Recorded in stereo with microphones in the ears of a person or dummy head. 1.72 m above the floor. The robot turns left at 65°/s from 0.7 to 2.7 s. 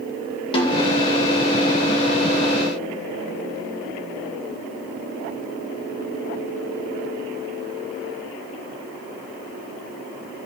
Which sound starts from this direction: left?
A snare drum, at 0.5 s.